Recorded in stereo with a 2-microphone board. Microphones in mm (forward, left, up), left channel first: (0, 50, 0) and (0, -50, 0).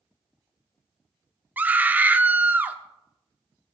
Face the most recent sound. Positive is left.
turn(degrees=-20)  # may be behind; listen again after turning